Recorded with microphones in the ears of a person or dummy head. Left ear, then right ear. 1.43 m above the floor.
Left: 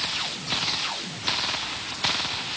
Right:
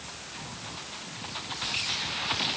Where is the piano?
I don't hear a piano.